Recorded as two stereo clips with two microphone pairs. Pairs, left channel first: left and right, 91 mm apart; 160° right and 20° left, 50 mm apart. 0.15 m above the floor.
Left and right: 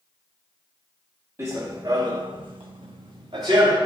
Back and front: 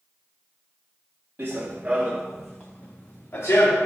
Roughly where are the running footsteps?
Ahead right.